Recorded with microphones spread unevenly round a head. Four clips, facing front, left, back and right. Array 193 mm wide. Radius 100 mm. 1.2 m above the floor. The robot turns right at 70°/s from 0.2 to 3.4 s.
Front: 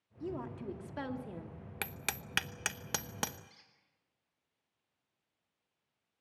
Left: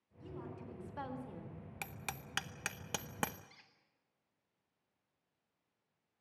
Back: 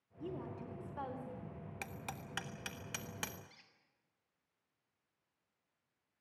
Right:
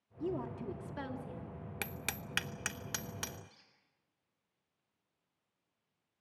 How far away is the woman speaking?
About 2.5 m.